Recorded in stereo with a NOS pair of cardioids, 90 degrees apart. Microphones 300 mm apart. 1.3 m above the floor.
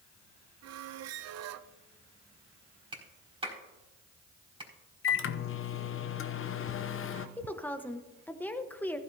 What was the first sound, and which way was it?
A squeak, 60° right.